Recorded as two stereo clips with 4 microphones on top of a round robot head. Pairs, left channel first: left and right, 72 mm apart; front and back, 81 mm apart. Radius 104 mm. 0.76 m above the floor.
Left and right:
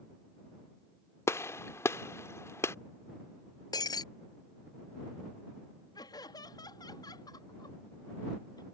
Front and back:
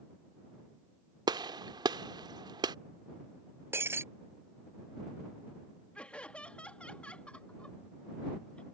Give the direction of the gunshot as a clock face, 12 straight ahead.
7 o'clock.